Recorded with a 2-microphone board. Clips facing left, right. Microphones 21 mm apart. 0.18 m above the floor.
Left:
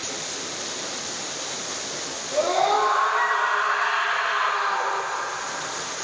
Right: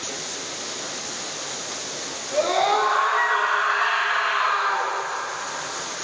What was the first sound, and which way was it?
A scream, 30° right (ahead or behind).